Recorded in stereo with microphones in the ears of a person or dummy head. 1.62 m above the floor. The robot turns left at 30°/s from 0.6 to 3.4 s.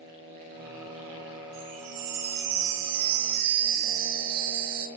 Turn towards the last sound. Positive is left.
turn(degrees=-90)